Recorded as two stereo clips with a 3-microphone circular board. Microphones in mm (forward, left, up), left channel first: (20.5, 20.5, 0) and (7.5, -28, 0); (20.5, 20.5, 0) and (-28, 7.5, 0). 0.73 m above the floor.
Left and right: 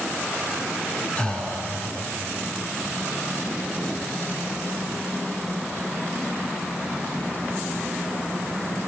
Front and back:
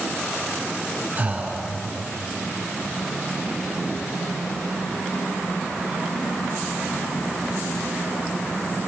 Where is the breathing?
140° left, 6.5 m.